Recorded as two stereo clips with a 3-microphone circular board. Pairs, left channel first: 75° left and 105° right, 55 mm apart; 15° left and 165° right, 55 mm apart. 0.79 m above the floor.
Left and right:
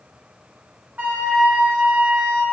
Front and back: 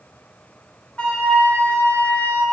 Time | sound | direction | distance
1.0 | a flute | 50° right | 0.6 m